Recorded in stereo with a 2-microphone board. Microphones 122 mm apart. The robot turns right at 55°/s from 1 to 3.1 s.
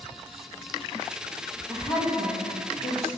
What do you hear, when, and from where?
1.7 s a woman speaking: 30° left, 4.5 m; by 3.1 s 105° left, 4.5 m